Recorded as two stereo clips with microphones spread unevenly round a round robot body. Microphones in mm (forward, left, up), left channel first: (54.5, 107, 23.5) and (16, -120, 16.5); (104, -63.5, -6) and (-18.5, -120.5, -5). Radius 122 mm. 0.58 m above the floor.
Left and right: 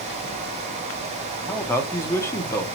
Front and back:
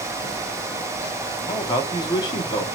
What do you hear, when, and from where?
1.5 s a man speaking: 5° left, 1.1 m